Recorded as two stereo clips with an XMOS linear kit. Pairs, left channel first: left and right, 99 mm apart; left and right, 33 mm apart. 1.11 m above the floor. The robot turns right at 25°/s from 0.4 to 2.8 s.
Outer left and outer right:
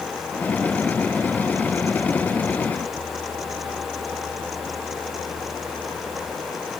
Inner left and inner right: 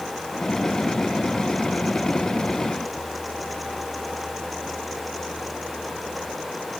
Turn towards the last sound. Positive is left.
No sound to turn to.